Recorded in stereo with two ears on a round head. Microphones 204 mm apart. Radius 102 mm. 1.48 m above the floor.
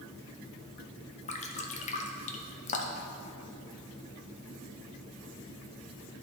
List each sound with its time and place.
1.3 s dripping: 30° left (ahead or behind), 0.7 m